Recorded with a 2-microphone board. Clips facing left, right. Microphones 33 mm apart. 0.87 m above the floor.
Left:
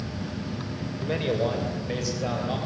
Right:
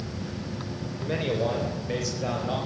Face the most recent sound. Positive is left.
turn(degrees=5)  # may be behind; listen again after turning